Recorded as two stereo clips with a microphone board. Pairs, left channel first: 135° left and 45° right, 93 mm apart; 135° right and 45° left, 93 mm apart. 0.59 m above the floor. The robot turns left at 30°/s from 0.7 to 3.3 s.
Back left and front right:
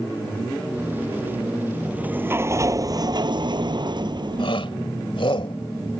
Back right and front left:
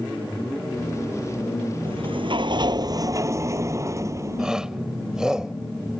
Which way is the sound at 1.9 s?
35° left.